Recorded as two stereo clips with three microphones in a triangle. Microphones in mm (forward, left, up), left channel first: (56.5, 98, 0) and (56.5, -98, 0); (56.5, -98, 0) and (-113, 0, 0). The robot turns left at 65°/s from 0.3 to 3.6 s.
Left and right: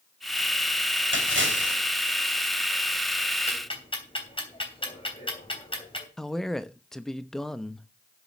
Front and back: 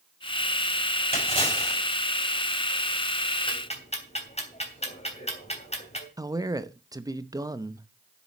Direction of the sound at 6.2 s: 175° left.